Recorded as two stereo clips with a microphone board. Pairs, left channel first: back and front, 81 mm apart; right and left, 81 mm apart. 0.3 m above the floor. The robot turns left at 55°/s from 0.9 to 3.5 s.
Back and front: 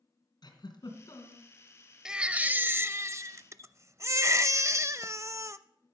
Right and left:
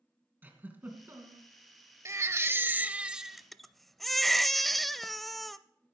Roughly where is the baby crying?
Left.